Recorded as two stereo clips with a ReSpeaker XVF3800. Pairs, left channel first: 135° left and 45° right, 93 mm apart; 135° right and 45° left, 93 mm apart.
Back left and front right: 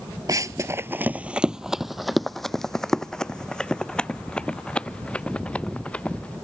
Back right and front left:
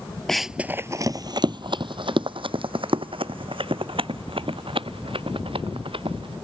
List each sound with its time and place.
0.3 s running footsteps: 50° right; by 6.3 s 60° left